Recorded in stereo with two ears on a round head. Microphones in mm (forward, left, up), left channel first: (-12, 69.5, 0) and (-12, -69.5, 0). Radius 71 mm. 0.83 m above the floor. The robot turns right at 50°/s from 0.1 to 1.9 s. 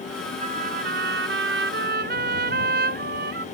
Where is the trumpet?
135° right; by 3.5 s 60° right.